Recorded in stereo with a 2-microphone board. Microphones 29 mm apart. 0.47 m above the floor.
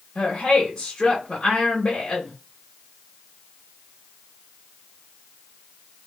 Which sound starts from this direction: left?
A woman speaking, at 0.1 s.